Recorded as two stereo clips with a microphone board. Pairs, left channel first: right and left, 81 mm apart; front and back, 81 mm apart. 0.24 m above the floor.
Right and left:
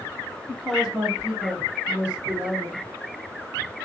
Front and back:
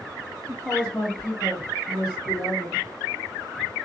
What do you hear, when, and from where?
0.5 s a woman speaking: 10° right, 1.3 m; by 2.8 s 60° left, 1.9 m